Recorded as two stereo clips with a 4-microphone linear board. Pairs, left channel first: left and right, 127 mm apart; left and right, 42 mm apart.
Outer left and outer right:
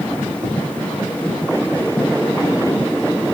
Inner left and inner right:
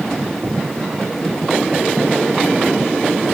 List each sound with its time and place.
0.4 s tapping: 20° right (ahead or behind), 7.5 m